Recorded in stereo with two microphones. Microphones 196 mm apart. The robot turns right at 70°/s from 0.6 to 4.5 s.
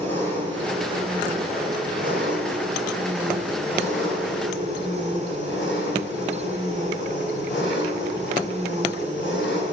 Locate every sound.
0.0 s an engine running: 170° left, 3.5 m; by 9.7 s 80° left, 3.5 m